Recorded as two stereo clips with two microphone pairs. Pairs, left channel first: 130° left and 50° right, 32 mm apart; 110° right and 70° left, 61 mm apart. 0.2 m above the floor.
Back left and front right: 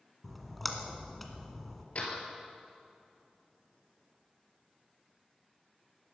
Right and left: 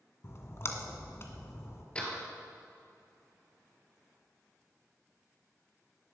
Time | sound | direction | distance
0.2 | a splash | 140° right | 1.8 m
1.9 | a door slam | straight behind | 3 m